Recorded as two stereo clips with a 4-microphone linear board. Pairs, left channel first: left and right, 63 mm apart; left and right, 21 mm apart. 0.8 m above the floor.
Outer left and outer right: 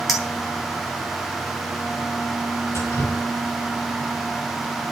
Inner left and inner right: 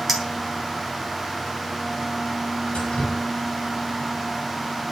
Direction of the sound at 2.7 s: 55° left (ahead or behind).